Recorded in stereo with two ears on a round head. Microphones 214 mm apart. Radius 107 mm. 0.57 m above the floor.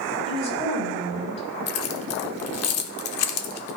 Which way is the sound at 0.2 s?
30° left (ahead or behind).